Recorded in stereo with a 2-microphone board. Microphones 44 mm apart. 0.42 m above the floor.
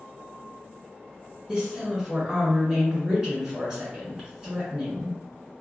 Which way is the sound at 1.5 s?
20° right (ahead or behind).